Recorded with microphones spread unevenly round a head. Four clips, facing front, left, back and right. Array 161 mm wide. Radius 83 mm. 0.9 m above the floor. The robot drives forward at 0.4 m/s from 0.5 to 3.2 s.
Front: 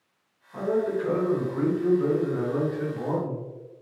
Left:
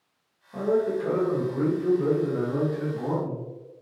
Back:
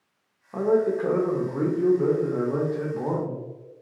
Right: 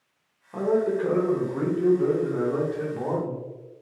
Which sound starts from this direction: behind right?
A man speaking, at 0.5 s.